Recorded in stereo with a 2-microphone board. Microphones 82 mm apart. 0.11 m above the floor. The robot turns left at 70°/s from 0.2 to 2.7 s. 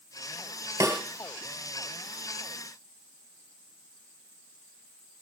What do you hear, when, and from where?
0.8 s a snare drum: 40° right (ahead or behind), 2.5 m; by 1.0 s 50° right (ahead or behind), 2.5 m